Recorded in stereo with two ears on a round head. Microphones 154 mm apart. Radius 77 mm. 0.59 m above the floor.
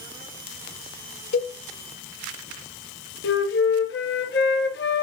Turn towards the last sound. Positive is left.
turn(degrees=75)  # may be behind; listen again after turning